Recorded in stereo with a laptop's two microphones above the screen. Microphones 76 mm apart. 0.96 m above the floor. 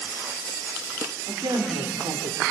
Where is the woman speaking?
75° right (ahead or behind), 3.5 m.